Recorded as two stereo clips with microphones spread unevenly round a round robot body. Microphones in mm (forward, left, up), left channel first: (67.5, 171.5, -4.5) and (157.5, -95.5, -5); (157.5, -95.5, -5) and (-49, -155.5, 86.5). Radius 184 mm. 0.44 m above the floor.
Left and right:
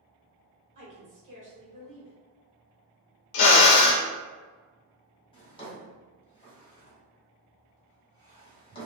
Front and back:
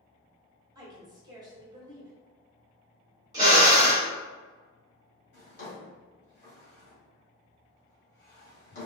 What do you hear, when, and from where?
0.8 s a woman speaking: 60° right, 1.4 m
3.3 s a drill: 110° left, 0.5 m
5.3 s a drawer: 35° left, 1.6 m